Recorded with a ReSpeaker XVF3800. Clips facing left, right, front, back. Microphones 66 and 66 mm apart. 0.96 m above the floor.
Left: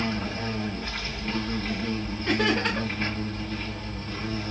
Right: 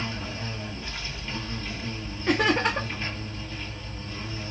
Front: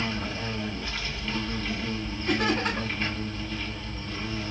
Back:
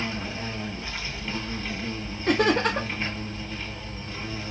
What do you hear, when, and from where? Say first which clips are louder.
0.0 s an insect: left 5 dB, even; 110° left, 2.5 m
2.3 s laughter: right 2 dB, back 5 dB; 165° right, 1.1 m